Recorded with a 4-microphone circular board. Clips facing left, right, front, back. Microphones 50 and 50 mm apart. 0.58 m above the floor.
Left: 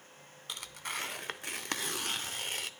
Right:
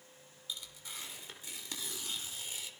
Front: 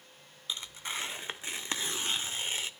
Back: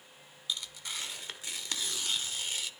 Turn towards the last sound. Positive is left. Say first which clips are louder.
# left 7 dB, front 1 dB
turn(degrees=60)